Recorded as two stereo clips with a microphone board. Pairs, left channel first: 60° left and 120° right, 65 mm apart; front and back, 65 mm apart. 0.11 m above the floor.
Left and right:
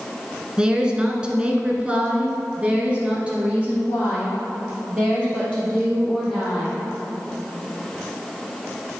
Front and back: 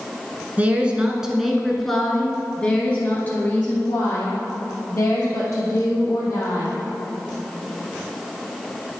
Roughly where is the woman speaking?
Behind.